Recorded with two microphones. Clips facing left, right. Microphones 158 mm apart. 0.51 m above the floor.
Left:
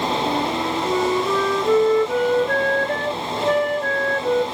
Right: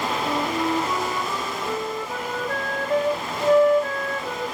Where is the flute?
70° left (ahead or behind), 1.0 m.